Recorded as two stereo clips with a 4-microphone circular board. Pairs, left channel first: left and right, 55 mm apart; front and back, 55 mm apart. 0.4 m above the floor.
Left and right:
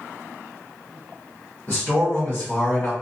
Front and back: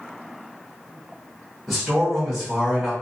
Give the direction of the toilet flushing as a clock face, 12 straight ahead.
No toilet flushing in this recording.